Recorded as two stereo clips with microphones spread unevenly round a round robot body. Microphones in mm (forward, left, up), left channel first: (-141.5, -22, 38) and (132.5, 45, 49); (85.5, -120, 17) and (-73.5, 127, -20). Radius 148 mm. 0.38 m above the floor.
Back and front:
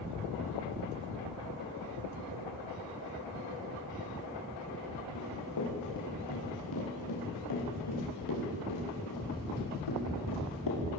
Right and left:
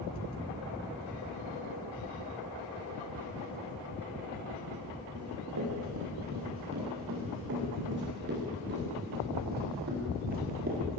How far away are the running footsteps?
About 9 m.